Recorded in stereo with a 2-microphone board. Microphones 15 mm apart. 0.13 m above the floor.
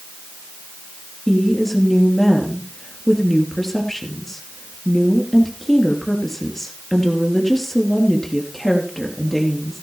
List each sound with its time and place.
1.3 s a woman speaking: 15° left (ahead or behind), 3 m